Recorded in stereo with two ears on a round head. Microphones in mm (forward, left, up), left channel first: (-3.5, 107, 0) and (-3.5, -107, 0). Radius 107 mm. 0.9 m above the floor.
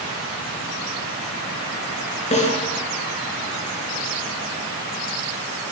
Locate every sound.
2.3 s a snare drum: 30° left (ahead or behind), 8 m